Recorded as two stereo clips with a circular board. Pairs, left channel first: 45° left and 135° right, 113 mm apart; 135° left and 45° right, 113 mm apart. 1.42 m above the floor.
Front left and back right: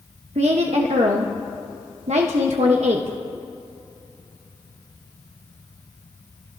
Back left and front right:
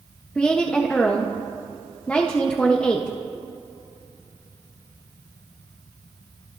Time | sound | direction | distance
0.3 | a woman speaking | 145° right | 1.1 m